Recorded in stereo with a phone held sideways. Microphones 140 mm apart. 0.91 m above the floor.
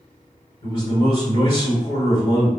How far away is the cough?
No cough in this recording.